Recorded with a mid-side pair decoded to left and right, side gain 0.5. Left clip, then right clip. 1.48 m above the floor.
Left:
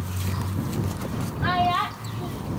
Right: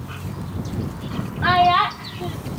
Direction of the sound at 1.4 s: 45° right.